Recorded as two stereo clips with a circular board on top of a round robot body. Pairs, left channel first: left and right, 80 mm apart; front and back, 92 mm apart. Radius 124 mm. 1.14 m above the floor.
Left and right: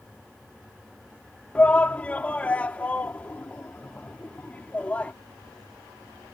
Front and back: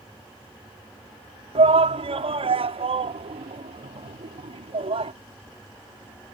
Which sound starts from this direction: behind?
A shout, at 1.6 s.